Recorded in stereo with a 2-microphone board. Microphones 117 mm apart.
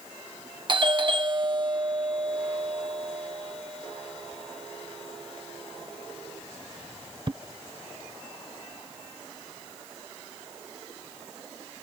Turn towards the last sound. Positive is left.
turn(degrees=-40)  # may be behind; listen again after turning